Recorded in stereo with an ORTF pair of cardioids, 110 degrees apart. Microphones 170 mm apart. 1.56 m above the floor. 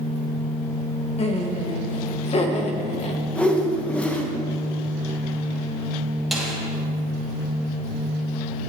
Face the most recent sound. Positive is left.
turn(degrees=0)